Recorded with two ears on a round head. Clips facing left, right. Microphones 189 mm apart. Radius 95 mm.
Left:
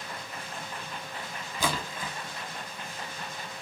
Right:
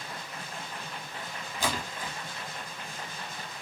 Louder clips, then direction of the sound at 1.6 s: Left 1 dB; 75° left (ahead or behind).